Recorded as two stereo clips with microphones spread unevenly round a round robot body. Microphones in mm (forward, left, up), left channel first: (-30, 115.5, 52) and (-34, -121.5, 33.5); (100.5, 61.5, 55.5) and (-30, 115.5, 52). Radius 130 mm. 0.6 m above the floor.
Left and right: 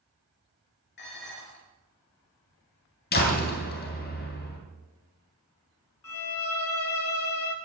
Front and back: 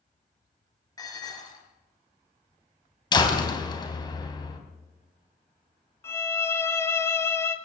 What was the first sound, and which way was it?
Dishes clattering, 40° left.